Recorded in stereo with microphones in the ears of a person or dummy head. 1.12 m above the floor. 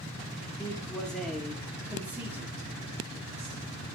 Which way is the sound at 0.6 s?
5° left (ahead or behind).